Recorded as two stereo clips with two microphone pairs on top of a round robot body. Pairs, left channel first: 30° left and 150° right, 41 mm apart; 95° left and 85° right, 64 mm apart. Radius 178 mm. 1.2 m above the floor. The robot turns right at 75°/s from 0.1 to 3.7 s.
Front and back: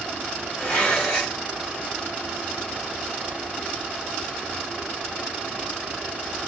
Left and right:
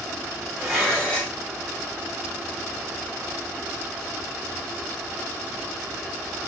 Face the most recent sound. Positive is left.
turn(degrees=-140)